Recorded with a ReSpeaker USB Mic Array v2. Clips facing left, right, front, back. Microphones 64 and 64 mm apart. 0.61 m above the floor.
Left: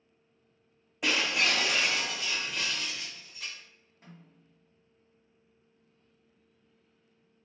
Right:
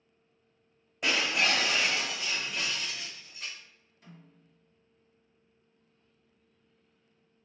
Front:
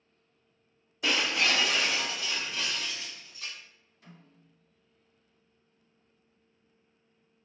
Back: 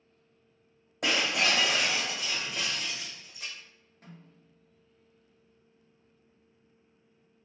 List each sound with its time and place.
1.0 s breaking glass: 175° left, 1.8 m
4.0 s a snare drum: 140° left, 1.6 m